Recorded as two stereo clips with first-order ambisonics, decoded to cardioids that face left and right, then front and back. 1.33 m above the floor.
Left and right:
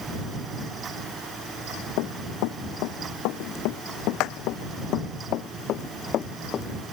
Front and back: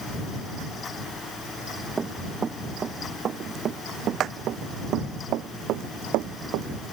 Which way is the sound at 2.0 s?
105° left.